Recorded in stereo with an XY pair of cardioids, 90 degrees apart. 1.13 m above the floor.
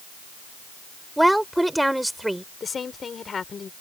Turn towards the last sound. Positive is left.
turn(degrees=45)